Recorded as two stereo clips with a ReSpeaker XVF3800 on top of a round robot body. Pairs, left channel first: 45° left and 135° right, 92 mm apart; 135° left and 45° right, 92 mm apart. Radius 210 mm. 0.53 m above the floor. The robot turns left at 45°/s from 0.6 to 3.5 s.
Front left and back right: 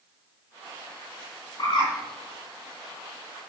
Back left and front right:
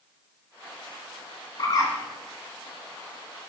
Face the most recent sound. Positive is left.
turn(degrees=10)